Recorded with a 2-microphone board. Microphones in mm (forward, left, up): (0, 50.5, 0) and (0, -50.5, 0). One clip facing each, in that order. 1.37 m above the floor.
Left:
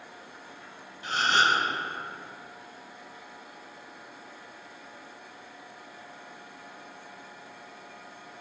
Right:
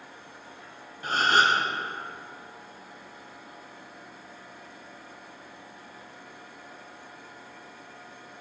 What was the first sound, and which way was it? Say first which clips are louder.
A gasp: right 2 dB; 50° right (ahead or behind).